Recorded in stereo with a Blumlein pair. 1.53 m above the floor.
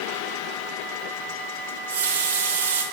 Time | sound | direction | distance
1.7 | a running tap | 65° right | 1.5 m